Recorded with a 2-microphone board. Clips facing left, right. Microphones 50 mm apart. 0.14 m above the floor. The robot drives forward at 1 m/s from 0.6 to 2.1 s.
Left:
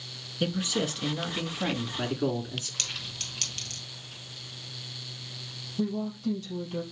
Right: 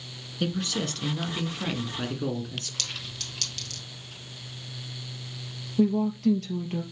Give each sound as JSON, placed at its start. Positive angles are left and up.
{"t": 0.4, "sound": "a man speaking", "side_deg": 5, "distance_m": 1.3}
{"t": 2.8, "sound": "a clink", "side_deg": 35, "distance_m": 1.8}
{"t": 5.8, "sound": "a woman speaking", "side_deg": -65, "distance_m": 3.5}